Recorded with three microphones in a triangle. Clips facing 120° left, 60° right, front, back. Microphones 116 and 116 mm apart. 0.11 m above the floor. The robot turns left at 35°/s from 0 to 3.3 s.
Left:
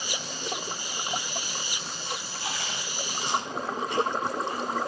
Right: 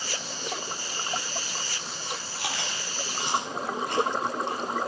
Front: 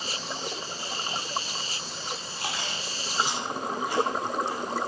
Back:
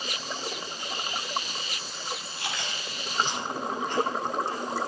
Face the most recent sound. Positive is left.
turn(degrees=-80)